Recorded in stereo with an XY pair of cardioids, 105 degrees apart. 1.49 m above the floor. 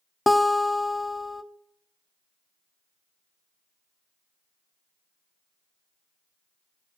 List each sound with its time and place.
0.3 s a guitar: 10° left, 0.6 m